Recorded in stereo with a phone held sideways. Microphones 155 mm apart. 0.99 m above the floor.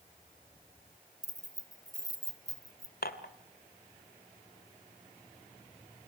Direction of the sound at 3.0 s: 80° left.